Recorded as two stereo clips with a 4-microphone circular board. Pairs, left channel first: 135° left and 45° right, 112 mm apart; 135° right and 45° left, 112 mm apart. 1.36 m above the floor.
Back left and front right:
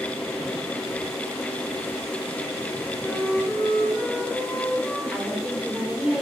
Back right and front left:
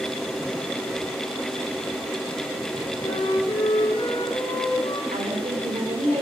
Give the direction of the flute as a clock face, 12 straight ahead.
5 o'clock.